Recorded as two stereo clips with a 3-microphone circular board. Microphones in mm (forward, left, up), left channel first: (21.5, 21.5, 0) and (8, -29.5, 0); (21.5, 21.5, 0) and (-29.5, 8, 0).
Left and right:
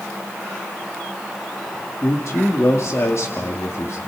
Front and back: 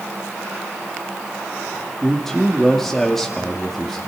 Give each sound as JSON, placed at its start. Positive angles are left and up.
{"t": 2.0, "sound": "a man speaking", "azimuth_deg": 100, "distance_m": 2.0}